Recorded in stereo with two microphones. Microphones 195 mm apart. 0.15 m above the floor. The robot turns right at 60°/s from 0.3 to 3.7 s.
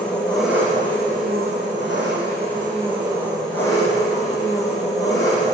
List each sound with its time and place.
0.0 s an engine running: 175° left, 5 m; by 5.5 s 20° left, 5 m